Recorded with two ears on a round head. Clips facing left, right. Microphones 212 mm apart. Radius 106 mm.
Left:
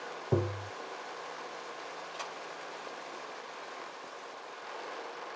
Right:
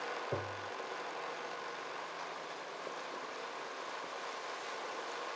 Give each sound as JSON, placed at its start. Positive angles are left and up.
{"t": 0.3, "sound": "tapping", "side_deg": 50}